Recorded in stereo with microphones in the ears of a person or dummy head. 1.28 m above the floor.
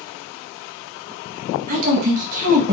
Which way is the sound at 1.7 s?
50° right (ahead or behind).